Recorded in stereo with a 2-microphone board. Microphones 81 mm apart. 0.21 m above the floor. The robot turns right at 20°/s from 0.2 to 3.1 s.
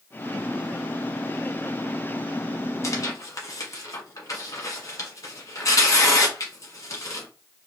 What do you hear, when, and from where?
2.8 s tearing paper: 40° left (ahead or behind), 1.0 m; by 7.3 s 45° left (ahead or behind), 1.0 m